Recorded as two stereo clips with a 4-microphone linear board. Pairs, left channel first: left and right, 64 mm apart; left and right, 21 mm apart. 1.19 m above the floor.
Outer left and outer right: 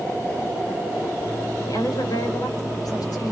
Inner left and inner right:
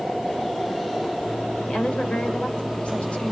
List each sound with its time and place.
1.7 s a woman speaking: 85° left, 4.5 m